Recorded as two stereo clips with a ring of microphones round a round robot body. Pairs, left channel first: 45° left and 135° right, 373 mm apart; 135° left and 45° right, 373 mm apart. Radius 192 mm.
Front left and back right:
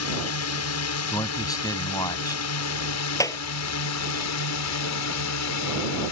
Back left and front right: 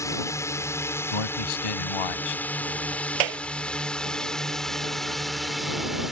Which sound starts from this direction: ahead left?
A drone, at 0.0 s.